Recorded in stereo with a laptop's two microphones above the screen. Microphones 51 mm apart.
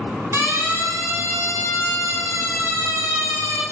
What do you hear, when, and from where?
0.3 s a siren: 65° right (ahead or behind), 8.5 m; by 3.6 s 90° right, 9.5 m